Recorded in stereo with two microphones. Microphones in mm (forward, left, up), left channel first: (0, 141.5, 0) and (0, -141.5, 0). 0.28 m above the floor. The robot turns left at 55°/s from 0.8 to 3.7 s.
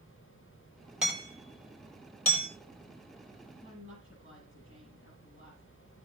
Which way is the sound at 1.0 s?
5° right (ahead or behind).